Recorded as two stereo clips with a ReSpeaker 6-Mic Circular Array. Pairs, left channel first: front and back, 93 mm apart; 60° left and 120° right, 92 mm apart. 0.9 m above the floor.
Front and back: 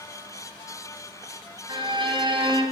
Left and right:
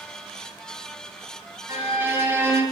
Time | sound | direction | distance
1.7 | a violin | 175° left | 3 m